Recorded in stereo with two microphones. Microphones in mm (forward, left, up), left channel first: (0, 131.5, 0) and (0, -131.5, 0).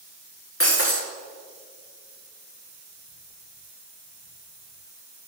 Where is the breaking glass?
55° left (ahead or behind), 2 m.